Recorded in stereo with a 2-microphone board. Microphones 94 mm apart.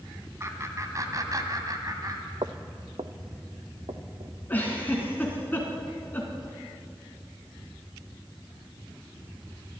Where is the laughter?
30° right (ahead or behind), 2.0 m; by 2.2 s 40° right (ahead or behind), 1.8 m.